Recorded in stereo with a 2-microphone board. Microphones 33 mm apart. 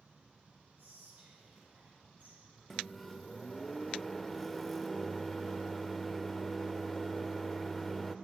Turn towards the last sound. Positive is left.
turn(degrees=5)  # may be behind; listen again after turning